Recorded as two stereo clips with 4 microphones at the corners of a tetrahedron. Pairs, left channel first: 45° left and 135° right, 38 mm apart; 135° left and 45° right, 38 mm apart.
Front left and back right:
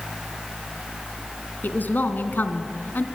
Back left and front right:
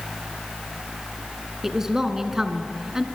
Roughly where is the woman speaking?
Ahead left.